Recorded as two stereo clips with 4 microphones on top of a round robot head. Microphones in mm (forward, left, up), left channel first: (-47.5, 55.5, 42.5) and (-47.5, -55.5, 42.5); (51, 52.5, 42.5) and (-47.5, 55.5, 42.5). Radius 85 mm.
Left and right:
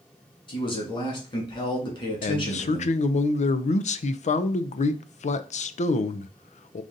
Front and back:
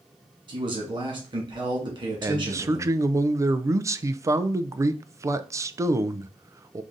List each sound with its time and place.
0.5 s a man speaking: 130° left, 2 m
2.2 s a man speaking: 115° left, 0.5 m